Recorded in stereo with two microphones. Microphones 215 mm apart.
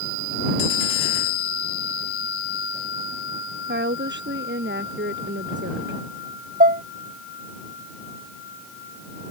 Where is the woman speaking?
50° right (ahead or behind).